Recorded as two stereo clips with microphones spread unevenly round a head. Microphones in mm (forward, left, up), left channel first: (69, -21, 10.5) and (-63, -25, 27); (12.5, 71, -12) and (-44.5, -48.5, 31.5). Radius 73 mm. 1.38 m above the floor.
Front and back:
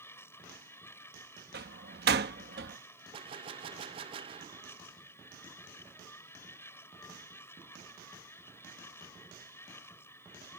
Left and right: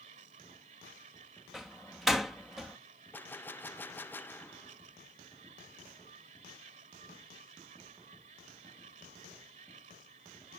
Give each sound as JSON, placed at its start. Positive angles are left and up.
{"t": 0.0, "sound": "a machine running", "azimuth_deg": -70}
{"t": 1.5, "sound": "a door slam", "azimuth_deg": 160}
{"t": 3.1, "sound": "a gunshot", "azimuth_deg": 130}